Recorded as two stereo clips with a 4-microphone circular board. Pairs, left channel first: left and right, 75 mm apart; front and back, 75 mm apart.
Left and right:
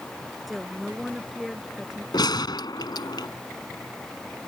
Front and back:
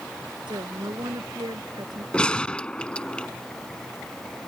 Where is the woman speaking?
Straight behind; by 2.0 s 170° right.